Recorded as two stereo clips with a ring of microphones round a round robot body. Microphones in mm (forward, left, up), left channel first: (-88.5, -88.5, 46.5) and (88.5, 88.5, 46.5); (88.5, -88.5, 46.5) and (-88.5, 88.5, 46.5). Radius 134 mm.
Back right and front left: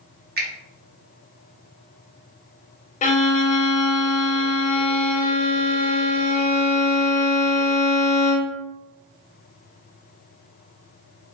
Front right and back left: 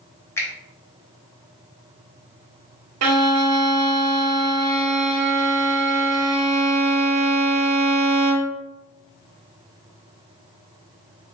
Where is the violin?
160° left, 0.6 m.